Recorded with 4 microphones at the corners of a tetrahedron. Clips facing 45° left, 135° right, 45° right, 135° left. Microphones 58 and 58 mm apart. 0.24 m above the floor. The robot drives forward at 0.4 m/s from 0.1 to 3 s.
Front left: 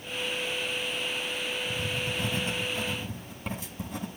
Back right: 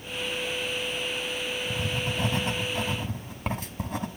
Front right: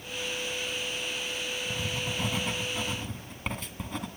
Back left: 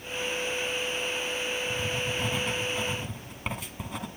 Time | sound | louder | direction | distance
1.7 | writing | back right 2 dB, back left 3 dB | 120° right | 1.5 m